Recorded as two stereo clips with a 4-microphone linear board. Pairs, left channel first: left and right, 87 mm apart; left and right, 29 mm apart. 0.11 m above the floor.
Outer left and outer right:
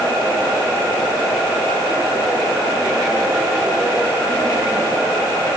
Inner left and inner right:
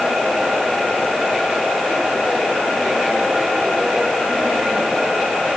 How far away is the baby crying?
No baby crying in this recording.